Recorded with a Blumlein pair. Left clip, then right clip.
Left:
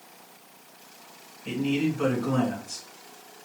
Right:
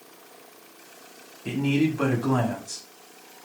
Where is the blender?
I don't hear a blender.